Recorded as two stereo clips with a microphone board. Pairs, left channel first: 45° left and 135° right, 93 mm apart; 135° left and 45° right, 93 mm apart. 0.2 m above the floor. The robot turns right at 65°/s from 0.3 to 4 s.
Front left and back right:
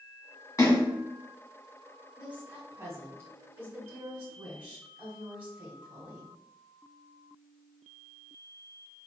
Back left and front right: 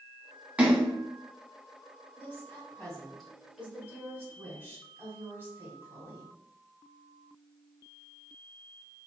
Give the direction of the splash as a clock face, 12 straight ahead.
11 o'clock.